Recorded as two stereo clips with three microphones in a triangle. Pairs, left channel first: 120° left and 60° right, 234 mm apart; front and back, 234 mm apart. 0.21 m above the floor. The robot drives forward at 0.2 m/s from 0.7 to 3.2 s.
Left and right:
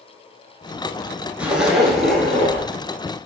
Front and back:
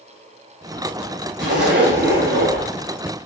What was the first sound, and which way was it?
A zipper, 145° right.